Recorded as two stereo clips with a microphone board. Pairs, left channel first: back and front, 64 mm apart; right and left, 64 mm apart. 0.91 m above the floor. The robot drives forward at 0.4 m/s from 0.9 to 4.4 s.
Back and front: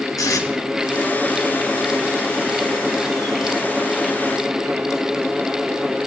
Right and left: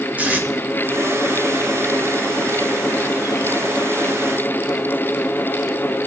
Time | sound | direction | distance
0.2 | tape being pulled | 155° left | 1.7 m